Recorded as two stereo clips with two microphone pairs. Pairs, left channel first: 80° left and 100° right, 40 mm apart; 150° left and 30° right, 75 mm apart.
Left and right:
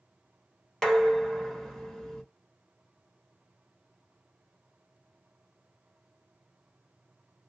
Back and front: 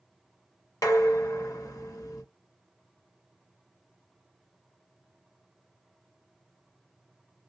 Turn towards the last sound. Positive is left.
turn(degrees=160)